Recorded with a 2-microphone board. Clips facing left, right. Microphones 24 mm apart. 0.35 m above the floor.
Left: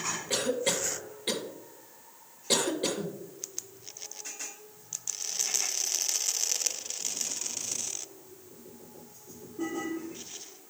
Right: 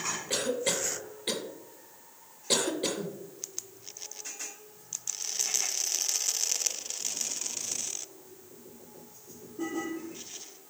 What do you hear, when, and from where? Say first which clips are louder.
0.3 s a cough: left 1 dB; centre (ahead or behind), 0.9 m